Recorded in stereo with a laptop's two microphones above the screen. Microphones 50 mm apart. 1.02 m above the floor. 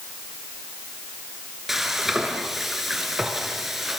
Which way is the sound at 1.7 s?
5° right (ahead or behind).